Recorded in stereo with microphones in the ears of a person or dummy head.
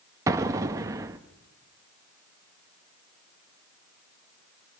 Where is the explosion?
15° right (ahead or behind), 1.0 m.